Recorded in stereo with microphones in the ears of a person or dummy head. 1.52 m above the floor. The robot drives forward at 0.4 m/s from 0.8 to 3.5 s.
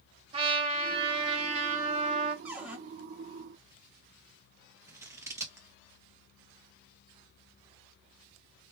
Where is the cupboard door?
10° right (ahead or behind), 1.9 m; by 2.8 s 5° right (ahead or behind), 2 m.